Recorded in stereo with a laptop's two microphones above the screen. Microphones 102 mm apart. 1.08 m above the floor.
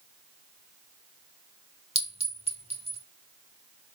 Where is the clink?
75° right (ahead or behind), 1.1 m.